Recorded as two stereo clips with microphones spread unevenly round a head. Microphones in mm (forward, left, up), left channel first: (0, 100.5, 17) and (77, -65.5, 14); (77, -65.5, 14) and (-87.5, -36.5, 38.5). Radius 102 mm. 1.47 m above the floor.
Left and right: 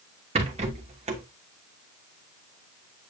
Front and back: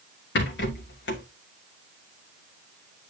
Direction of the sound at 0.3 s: 10° right.